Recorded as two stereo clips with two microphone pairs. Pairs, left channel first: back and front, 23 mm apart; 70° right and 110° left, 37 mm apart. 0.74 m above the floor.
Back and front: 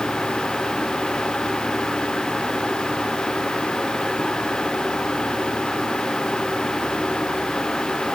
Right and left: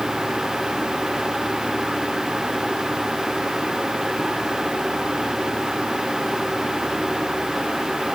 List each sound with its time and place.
Only background noise.